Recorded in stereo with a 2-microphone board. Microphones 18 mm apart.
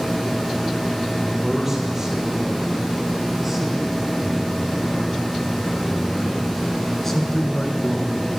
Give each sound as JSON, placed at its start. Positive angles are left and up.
{"t": 1.2, "sound": "a man speaking", "side_deg": -20, "distance_m": 5.0}